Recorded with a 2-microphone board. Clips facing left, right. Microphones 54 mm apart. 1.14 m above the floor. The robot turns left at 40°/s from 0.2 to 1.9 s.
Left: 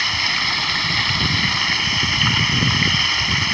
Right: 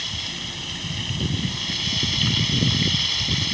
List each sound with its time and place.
0.0 s running water: 115° left; by 3.5 s 50° left